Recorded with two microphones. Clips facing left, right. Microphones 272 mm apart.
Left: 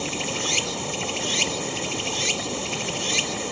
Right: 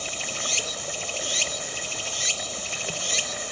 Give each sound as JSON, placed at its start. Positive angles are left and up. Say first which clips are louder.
{"t": 0.0, "sound": "running water", "louder": "left 8 dB", "side_deg": 65}